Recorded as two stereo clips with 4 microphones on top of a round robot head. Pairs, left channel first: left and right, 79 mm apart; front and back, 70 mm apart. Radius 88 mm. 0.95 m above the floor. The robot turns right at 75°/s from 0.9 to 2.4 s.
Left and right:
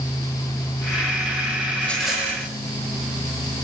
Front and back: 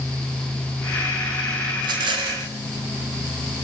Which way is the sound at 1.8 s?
160° left.